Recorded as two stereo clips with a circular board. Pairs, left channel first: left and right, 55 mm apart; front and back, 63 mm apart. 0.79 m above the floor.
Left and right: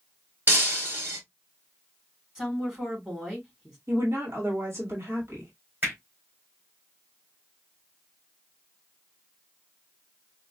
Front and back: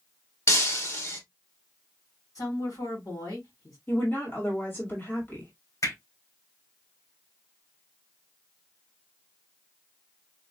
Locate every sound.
0.5 s breaking glass: 35° right, 2 m
2.4 s a woman speaking: 10° right, 3 m
3.9 s a woman speaking: 55° right, 1.8 m
5.8 s hammering: 30° right, 3 m